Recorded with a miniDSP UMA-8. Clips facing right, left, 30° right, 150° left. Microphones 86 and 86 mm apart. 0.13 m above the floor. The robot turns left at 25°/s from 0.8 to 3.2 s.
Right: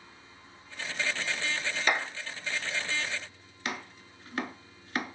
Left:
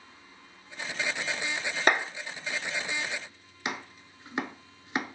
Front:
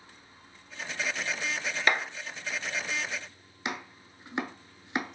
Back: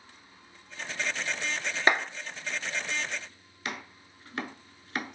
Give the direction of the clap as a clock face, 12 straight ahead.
9 o'clock.